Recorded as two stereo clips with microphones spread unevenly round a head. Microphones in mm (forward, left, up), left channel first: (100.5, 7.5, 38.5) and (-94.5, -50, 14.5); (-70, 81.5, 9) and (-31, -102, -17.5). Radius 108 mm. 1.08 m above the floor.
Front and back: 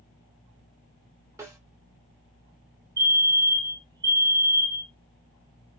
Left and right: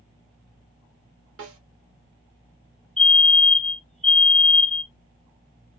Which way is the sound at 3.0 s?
160° right.